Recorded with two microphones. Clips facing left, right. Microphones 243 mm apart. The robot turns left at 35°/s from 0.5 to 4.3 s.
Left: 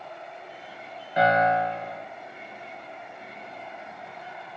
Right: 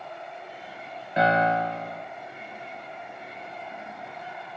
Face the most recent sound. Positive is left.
turn(degrees=-135)